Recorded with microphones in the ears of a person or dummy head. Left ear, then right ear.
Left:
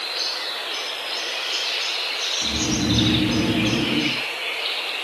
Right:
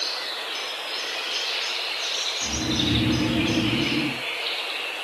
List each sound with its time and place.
2.4 s snoring: 50° left (ahead or behind), 1.0 m